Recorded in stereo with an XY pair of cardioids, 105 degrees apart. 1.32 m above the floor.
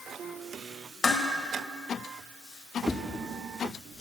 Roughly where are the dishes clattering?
Ahead left.